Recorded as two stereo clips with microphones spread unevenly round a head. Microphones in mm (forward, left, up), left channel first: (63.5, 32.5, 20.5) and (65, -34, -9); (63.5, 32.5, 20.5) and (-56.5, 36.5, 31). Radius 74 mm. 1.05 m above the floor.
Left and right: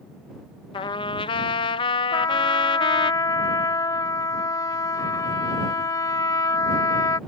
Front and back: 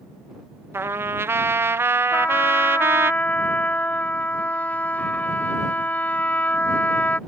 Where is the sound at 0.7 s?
105° left.